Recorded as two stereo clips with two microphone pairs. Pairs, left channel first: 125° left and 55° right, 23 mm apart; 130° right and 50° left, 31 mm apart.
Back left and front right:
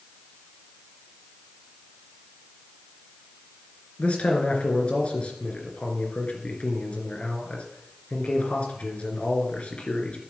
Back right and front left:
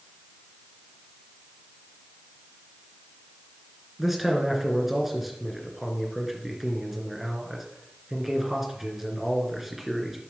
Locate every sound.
4.0 s a man speaking: 130° left, 3 m